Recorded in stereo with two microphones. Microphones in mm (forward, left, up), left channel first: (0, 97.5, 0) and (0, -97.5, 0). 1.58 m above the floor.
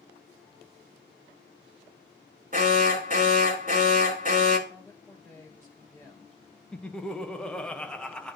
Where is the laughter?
5° left (ahead or behind), 1.3 m.